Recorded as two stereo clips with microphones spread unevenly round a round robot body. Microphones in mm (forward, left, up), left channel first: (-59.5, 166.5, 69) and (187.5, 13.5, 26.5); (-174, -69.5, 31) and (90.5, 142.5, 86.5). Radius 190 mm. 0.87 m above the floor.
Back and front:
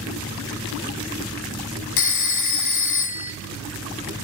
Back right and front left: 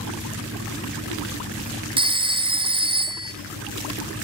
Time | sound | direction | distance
2.0 | a phone ringing | 115° left | 0.5 m